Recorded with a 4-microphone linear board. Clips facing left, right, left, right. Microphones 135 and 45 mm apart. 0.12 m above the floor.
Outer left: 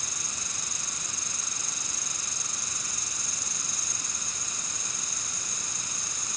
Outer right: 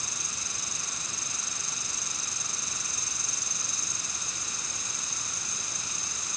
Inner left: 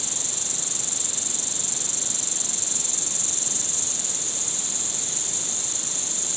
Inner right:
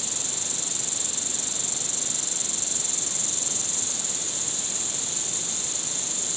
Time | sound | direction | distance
0.0 | an insect | 45° left (ahead or behind) | ?